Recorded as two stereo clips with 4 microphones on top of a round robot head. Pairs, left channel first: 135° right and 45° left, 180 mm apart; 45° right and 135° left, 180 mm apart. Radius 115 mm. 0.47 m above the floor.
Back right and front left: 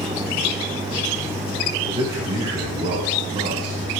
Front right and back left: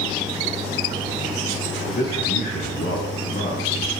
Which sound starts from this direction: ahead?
A man speaking, at 1.9 s.